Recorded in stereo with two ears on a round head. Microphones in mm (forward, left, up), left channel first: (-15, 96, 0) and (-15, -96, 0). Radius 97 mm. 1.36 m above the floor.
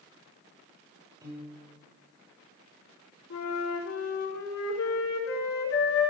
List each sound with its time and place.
1.2 s a piano: 20° right (ahead or behind), 5 m
3.3 s a flute: 75° left (ahead or behind), 4.5 m